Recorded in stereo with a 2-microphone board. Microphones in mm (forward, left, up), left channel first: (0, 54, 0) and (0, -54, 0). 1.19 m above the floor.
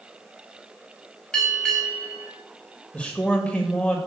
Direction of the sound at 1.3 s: 10° left (ahead or behind).